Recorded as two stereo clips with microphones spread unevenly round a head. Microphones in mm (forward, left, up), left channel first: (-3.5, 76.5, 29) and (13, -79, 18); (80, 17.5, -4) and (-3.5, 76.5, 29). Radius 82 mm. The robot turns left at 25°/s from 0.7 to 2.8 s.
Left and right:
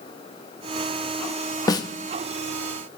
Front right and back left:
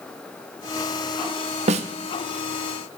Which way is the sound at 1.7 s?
160° left.